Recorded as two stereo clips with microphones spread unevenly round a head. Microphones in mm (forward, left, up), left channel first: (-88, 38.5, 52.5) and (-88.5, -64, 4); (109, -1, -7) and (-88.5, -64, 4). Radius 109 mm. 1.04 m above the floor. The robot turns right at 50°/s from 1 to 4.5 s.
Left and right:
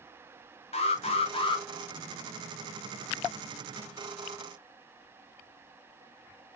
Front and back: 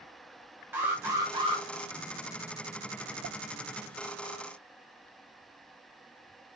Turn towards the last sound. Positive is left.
turn(degrees=-70)